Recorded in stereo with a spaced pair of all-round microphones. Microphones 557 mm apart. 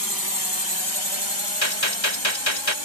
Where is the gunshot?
60° left (ahead or behind).